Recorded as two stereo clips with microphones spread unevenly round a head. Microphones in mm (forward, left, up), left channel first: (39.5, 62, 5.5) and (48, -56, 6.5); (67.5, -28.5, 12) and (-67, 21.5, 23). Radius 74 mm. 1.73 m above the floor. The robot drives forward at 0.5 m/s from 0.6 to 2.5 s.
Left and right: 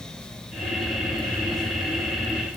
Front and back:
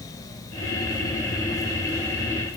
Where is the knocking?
No knocking in this recording.